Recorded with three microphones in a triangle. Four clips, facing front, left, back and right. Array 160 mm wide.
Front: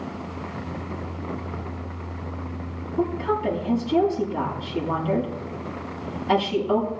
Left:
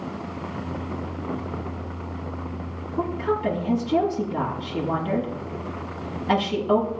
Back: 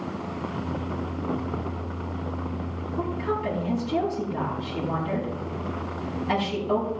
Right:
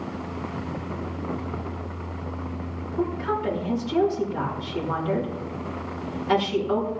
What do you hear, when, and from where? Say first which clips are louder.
3.0 s a woman speaking: left 2 dB, front 4 dB; 85° left, 7 m